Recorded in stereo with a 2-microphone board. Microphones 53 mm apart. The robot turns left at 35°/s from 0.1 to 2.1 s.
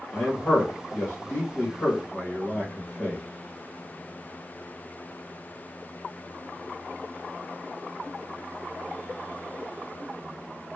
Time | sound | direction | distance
0.1 | a man speaking | 120° left | 1.7 m